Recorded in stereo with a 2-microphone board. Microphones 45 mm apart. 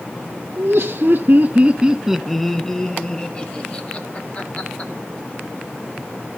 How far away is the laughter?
About 1.3 m.